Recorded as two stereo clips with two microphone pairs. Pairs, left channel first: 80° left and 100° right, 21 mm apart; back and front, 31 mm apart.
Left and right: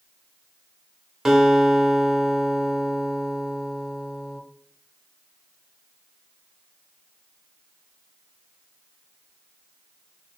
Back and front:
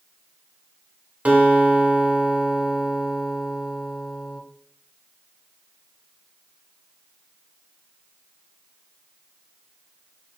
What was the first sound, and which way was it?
A guitar, 40° right.